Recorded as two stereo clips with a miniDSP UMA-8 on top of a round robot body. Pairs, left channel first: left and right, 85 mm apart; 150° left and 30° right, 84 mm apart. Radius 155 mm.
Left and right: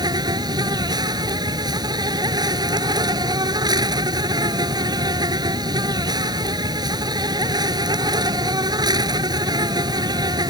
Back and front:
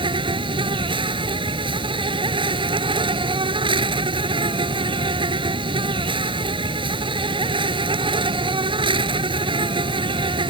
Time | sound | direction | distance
0.0 | an insect | 50° right | ?